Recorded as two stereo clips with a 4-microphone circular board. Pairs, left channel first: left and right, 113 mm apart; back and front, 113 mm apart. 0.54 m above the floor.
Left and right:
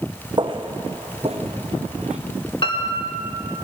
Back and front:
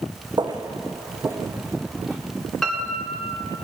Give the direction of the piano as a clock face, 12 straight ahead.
9 o'clock.